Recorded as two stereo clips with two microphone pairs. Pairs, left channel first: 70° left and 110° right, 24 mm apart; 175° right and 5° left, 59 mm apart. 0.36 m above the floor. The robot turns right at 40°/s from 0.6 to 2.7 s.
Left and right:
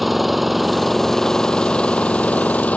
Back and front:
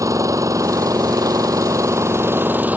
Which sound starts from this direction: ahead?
An engine running, at 0.0 s.